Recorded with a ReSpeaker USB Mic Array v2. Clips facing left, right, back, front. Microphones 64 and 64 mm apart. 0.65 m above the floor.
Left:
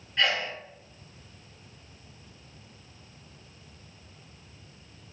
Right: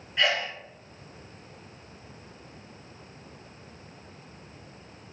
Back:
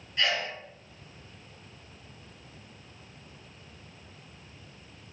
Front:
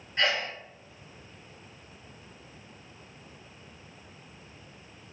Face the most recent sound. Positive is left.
turn(degrees=-5)